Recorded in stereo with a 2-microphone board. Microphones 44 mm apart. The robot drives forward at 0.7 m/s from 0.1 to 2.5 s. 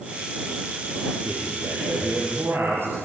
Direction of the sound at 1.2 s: 60° right (ahead or behind).